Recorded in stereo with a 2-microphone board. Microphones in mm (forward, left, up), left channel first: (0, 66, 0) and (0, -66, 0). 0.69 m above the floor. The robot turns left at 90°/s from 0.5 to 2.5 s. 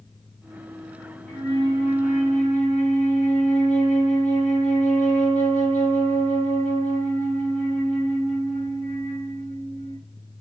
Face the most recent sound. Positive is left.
turn(degrees=60)